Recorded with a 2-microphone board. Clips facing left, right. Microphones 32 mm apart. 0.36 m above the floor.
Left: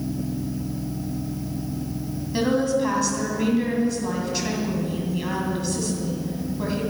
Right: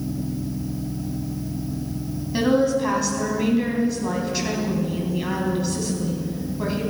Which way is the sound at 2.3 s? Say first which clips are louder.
Right 2 dB; 10° right (ahead or behind).